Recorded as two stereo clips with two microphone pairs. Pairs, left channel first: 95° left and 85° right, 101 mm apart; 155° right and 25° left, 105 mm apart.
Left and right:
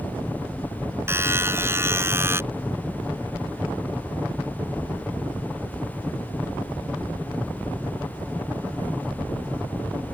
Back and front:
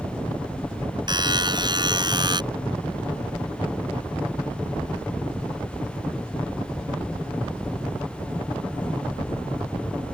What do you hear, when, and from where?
1.1 s a buzzer: 20° right